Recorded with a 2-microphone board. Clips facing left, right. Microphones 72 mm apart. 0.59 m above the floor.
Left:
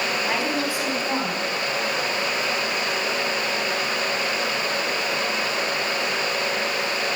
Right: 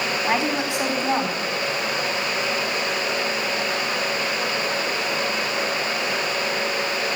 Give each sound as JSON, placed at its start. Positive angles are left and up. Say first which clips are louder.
{"t": 0.2, "sound": "a woman speaking", "louder": "right 2 dB", "side_deg": -20, "distance_m": 4.5}